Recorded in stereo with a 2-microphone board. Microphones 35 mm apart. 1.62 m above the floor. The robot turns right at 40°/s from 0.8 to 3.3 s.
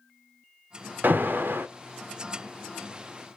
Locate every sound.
1.0 s an alarm: 65° right (ahead or behind), 0.6 m; by 1.7 s 80° right, 0.6 m